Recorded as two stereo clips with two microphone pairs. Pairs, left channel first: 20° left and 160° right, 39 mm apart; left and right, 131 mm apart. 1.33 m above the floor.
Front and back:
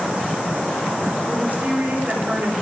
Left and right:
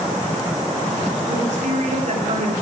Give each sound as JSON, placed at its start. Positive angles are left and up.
{"t": 1.3, "sound": "a woman speaking", "azimuth_deg": -115, "distance_m": 3.5}